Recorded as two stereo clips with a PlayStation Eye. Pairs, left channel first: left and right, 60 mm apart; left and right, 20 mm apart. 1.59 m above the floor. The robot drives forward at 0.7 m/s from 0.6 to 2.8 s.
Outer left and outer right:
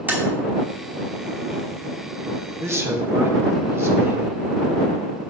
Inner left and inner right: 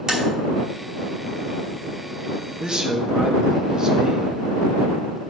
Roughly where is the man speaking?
Right.